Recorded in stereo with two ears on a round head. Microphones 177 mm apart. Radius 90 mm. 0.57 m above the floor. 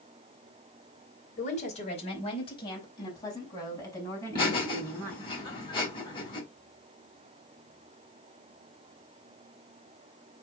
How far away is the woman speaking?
About 3 m.